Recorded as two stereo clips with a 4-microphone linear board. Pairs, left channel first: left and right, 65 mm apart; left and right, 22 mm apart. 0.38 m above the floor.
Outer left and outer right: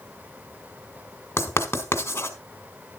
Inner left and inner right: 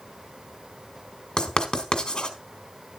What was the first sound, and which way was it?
Writing, 35° left (ahead or behind).